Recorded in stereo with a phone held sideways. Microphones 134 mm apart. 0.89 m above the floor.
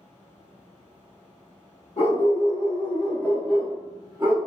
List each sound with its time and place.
2.0 s a dog barking: 55° left (ahead or behind), 1.1 m; by 4.4 s 20° right (ahead or behind), 1.0 m